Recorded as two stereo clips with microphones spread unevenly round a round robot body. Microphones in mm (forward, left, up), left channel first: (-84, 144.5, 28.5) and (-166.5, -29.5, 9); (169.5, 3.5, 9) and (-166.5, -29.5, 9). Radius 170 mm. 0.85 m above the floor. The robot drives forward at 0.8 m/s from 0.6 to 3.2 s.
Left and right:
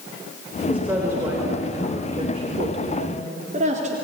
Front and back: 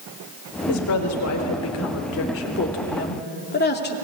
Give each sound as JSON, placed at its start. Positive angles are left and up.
{"t": 0.7, "sound": "a woman speaking", "azimuth_deg": -30, "distance_m": 4.0}